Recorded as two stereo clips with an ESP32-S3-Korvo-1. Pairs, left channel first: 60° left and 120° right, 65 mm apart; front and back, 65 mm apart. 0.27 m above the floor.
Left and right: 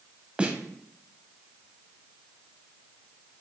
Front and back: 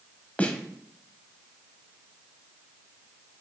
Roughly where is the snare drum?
Ahead right.